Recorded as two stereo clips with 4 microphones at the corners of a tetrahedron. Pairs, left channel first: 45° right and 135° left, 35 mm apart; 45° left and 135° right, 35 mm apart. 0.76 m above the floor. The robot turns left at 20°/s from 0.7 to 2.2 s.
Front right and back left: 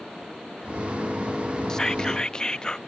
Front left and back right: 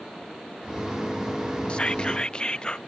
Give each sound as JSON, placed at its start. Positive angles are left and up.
{"t": 1.7, "sound": "whispering", "azimuth_deg": 15}